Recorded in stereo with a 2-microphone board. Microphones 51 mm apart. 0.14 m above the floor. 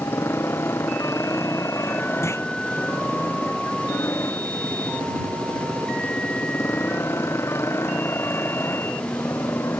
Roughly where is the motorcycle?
Left.